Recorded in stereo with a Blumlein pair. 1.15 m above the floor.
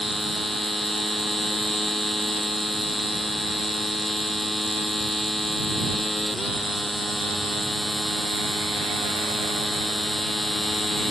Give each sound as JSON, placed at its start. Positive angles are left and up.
{"t": 0.0, "sound": "a machine running", "azimuth_deg": 5}